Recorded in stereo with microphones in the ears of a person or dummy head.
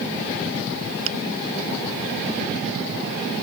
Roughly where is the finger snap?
Right.